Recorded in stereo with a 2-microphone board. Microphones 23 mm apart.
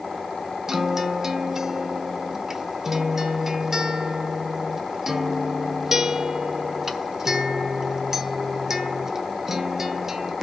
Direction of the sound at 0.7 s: 20° right (ahead or behind).